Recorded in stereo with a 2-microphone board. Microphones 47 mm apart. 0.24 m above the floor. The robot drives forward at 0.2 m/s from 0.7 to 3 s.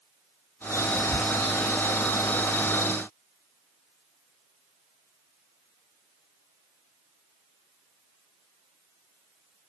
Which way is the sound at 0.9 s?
10° left (ahead or behind).